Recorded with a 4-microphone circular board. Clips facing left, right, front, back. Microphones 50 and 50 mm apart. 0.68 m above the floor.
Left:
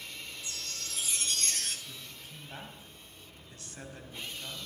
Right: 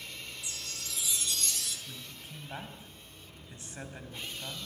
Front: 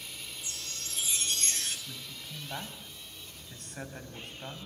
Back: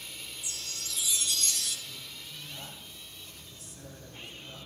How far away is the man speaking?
About 4 m.